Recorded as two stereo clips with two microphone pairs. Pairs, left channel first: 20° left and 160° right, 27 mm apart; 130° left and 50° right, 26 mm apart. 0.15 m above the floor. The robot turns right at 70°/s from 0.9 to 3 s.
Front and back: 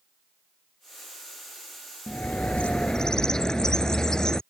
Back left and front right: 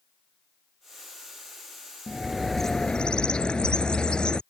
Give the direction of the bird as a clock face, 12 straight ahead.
11 o'clock.